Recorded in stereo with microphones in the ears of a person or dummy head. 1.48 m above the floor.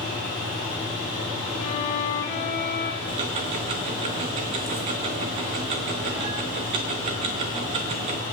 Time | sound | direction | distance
0.0 | a fan | 30° left (ahead or behind) | 7 m
1.6 | a violin | 35° left (ahead or behind) | 1.0 m
3.1 | ticking | 30° right (ahead or behind) | 0.9 m